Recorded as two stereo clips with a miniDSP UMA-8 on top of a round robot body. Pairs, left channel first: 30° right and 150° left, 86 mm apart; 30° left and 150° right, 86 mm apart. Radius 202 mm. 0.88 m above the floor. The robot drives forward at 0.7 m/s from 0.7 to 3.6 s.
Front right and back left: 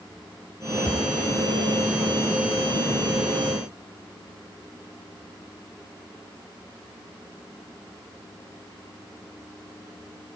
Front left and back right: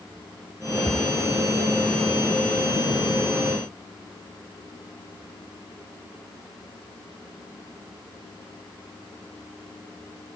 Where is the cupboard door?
70° right, 4.5 m; by 1.1 s 75° right, 4.5 m.